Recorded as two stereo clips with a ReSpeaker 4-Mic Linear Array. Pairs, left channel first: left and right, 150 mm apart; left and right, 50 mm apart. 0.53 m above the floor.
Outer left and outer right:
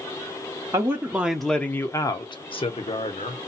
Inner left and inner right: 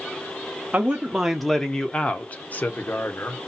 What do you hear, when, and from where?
0.7 s a man speaking: 25° right (ahead or behind), 0.8 m; by 3.4 s 55° left (ahead or behind), 1.2 m